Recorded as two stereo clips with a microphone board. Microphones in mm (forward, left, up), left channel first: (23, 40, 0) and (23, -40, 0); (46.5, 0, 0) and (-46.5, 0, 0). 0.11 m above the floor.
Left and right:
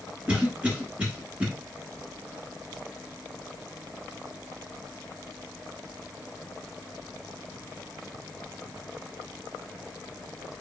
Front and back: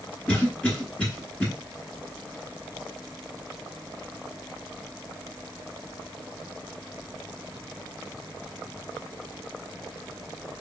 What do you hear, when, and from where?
0.3 s a cough: 50° right, 1.1 m